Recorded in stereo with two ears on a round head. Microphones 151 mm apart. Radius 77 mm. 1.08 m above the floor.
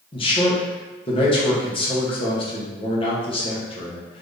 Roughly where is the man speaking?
Left.